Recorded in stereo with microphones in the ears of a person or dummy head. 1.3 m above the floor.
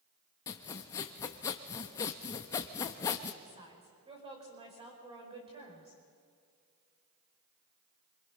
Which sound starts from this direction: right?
A woman speaking, at 3.4 s.